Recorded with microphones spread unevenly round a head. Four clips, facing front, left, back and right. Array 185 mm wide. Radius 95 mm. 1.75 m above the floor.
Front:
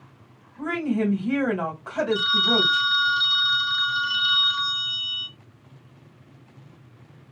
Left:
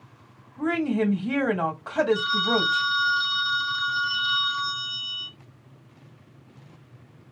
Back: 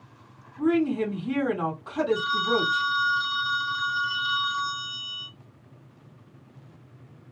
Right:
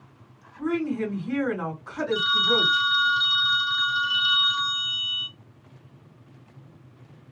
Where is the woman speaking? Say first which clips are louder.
Left 2 dB, back 2 dB; 65° left, 1.7 m.